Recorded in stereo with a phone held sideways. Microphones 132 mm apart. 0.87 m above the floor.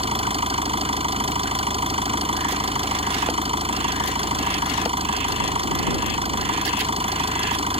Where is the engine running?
45° right (ahead or behind).